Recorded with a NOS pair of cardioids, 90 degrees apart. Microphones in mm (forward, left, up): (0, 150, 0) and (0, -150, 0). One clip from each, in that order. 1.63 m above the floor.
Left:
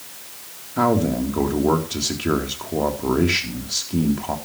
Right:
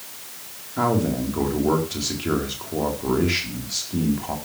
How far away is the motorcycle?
No motorcycle in this recording.